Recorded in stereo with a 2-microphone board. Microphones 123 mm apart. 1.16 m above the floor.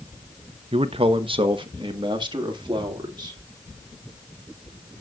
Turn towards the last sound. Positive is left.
turn(degrees=-35)  # may be behind; listen again after turning